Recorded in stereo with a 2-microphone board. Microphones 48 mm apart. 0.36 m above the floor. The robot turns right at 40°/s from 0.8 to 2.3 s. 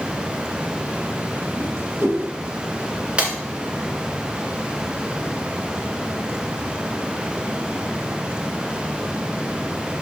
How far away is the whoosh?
About 1.8 m.